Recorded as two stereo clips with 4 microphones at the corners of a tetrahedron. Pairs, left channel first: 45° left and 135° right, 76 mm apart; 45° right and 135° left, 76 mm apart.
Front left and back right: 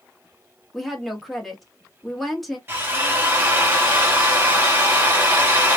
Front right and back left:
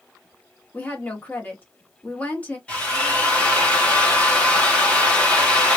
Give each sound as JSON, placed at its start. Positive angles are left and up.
{"t": 0.7, "sound": "a woman speaking", "azimuth_deg": -45, "distance_m": 0.9}
{"t": 2.7, "sound": "a drill", "azimuth_deg": -100, "distance_m": 1.4}